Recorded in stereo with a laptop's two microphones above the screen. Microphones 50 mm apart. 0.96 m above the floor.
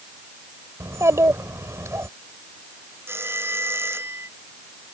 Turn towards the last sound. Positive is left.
turn(degrees=-50)  # may be behind; listen again after turning